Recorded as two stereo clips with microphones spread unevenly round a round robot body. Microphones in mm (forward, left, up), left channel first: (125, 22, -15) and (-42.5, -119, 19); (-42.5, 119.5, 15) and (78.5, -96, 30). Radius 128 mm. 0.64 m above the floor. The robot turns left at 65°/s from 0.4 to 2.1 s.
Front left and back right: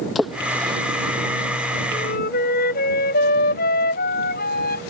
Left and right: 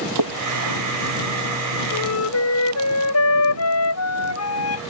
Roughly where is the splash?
Ahead right.